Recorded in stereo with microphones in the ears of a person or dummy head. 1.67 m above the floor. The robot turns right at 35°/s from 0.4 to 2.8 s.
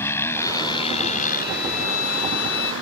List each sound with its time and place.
0.0 s a motorcycle: 15° left; by 2.8 s 100° left
1.4 s a violin: 35° left; by 2.7 s 80° left